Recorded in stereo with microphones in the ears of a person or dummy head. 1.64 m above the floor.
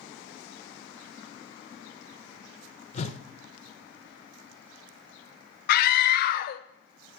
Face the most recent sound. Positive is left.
turn(degrees=55)  # may be behind; listen again after turning